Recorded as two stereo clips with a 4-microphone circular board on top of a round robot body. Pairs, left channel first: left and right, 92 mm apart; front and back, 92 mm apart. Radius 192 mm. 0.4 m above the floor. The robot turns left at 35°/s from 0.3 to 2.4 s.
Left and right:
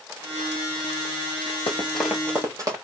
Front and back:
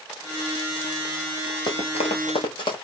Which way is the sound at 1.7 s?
50° left.